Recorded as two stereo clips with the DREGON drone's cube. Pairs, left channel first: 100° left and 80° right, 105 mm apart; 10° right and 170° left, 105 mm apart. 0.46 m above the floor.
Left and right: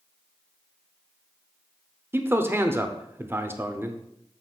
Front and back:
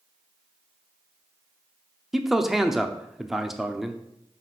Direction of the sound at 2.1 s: 105° right.